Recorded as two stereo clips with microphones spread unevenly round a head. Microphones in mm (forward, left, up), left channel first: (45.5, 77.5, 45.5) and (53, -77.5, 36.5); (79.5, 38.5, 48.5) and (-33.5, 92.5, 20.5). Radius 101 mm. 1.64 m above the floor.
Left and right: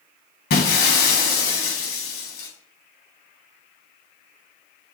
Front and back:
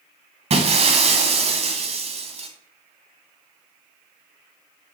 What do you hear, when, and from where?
0.5 s breaking glass: 120° left, 2.5 m